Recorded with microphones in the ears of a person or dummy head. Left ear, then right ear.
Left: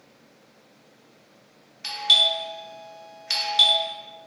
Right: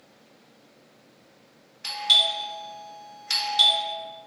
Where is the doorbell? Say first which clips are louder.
Left 2 dB; centre (ahead or behind), 0.6 m.